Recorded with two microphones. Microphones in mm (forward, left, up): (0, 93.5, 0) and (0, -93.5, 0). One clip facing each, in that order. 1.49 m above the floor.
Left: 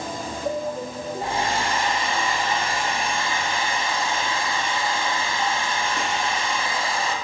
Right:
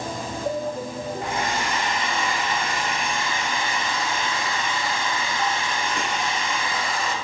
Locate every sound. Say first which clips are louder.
1.2 s a hair dryer: left 3 dB; 30° left (ahead or behind), 0.7 m